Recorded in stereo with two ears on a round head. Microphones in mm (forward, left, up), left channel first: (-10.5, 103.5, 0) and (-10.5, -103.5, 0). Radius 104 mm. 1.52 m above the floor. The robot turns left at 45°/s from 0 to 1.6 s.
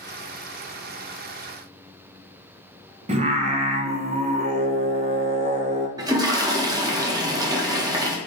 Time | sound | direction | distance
3.1 | singing | 25° right (ahead or behind) | 0.6 m
6.0 | a toilet flushing | 15° right (ahead or behind) | 0.6 m